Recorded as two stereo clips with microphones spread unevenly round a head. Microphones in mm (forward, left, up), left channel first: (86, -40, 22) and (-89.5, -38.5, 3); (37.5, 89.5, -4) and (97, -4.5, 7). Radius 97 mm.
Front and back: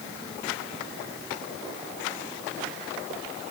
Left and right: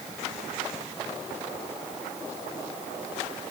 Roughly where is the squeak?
I don't hear a squeak.